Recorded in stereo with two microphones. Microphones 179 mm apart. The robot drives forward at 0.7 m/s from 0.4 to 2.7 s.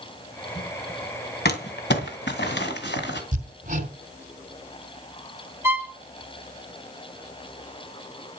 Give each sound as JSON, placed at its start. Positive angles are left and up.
{"t": 1.4, "sound": "crumpling", "side_deg": 70, "distance_m": 2.0}
{"t": 3.3, "sound": "hammering", "side_deg": -45, "distance_m": 2.5}
{"t": 5.6, "sound": "a violin", "side_deg": -15, "distance_m": 1.9}